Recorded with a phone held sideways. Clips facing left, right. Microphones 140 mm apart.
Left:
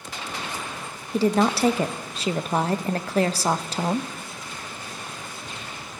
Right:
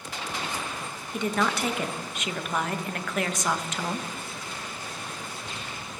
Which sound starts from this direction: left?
A woman speaking, at 1.1 s.